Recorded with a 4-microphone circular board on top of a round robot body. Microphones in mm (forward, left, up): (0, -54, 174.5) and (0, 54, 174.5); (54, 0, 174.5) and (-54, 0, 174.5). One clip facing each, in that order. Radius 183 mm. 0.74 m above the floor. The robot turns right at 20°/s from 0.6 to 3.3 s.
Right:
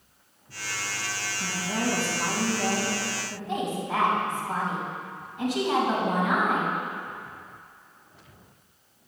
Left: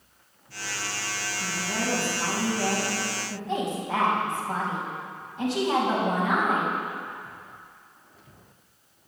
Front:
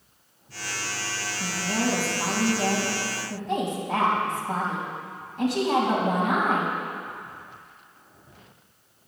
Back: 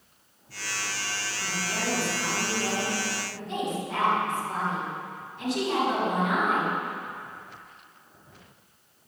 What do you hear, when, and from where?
1.4 s a woman speaking: 5° right, 4.5 m; by 6.7 s 30° left, 4.5 m